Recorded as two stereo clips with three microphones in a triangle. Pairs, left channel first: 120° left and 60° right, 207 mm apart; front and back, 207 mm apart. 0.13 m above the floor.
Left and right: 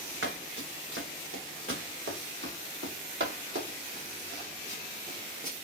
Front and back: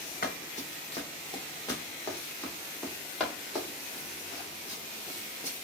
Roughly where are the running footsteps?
Ahead right.